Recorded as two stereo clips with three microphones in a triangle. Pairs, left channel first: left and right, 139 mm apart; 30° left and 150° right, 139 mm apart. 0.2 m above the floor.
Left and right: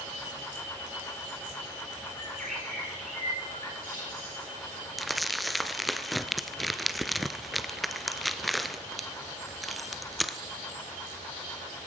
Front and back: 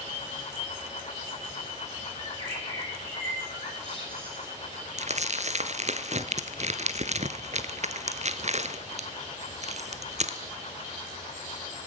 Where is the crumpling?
Straight behind, 1.3 m.